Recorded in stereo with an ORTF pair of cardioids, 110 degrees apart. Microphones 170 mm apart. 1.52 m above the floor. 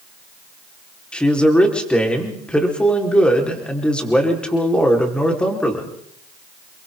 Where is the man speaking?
5° left, 4.5 m.